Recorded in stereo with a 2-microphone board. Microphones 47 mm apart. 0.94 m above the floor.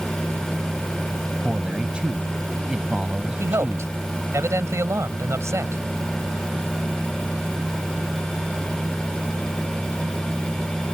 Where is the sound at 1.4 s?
20° right (ahead or behind).